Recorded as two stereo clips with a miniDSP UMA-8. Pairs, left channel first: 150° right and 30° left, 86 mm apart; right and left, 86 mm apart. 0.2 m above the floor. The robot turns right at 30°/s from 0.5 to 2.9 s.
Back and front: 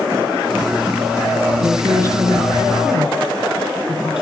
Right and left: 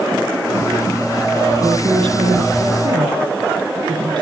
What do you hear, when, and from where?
1.6 s a woman speaking: 70° left, 5.5 m; by 4.2 s 110° left, 5.5 m